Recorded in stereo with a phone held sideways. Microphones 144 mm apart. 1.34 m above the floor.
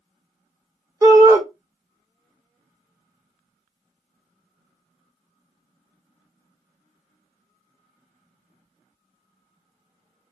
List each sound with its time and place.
1.0 s a shout: 20° right (ahead or behind), 0.8 m